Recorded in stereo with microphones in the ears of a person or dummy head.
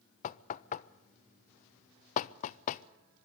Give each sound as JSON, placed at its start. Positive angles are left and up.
{"t": 0.2, "sound": "knocking", "side_deg": 40, "distance_m": 0.5}